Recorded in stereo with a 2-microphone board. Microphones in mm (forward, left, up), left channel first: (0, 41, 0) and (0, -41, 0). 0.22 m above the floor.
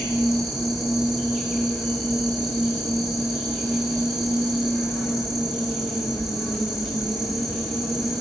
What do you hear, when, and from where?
0.0 s an insect: 5° right (ahead or behind), 5 m